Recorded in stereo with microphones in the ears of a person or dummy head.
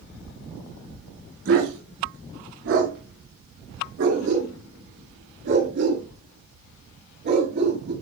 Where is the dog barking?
70° right (ahead or behind), 4.5 m; by 7.9 s 55° right (ahead or behind), 6.5 m.